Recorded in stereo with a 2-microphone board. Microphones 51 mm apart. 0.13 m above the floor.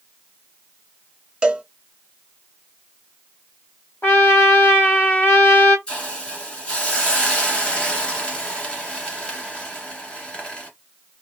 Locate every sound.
1.4 s a cowbell: 20° right (ahead or behind), 0.6 m
4.0 s a trumpet: 40° left (ahead or behind), 1.4 m
5.9 s a hiss: 20° left (ahead or behind), 1.5 m